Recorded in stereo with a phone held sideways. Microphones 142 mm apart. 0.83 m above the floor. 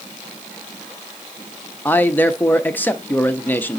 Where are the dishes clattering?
No dishes clattering in this recording.